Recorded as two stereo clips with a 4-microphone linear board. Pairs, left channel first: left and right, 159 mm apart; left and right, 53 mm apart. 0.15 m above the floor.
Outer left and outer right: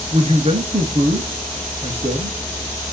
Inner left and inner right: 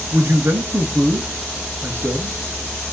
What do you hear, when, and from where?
0.1 s a man speaking: 45° right (ahead or behind), 1.9 m